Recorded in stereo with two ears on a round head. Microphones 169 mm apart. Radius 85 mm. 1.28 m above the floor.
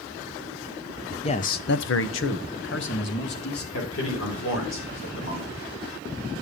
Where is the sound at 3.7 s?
70° left (ahead or behind), 4.5 m.